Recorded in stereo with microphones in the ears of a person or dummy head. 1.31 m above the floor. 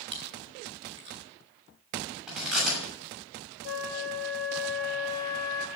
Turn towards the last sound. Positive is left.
turn(degrees=50)  # may be behind; listen again after turning